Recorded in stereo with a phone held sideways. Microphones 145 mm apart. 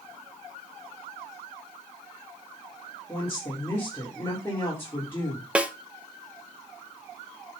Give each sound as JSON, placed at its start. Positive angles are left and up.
{"t": 3.1, "sound": "a woman speaking", "side_deg": 15, "distance_m": 4.5}
{"t": 5.5, "sound": "a snare drum", "side_deg": -10, "distance_m": 1.0}